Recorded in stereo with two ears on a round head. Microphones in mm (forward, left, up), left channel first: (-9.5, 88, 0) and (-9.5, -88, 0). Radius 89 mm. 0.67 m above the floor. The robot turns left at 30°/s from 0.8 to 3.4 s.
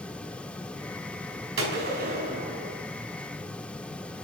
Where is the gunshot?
110° right, 2.5 m; by 2.8 s 145° right, 2.5 m.